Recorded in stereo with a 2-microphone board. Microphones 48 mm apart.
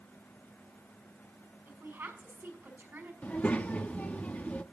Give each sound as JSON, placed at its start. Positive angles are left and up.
{"t": 1.7, "sound": "a woman speaking", "side_deg": -45, "distance_m": 5.5}
{"t": 3.2, "sound": "a child speaking", "side_deg": 35, "distance_m": 0.9}